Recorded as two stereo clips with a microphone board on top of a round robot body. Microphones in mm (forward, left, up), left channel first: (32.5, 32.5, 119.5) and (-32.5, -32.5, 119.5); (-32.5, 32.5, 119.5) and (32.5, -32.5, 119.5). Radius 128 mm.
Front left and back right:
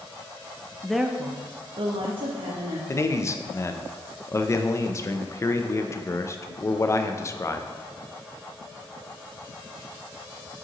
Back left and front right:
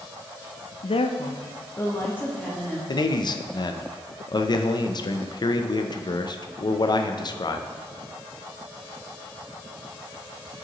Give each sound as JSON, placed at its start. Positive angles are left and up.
{"t": 0.8, "sound": "a woman speaking", "azimuth_deg": 125, "distance_m": 0.7}
{"t": 2.9, "sound": "a man speaking", "azimuth_deg": 100, "distance_m": 0.5}